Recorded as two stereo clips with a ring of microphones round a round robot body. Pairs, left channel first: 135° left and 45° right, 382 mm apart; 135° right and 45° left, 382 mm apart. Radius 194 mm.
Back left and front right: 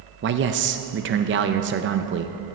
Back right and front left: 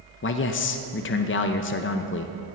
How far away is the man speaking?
About 0.6 m.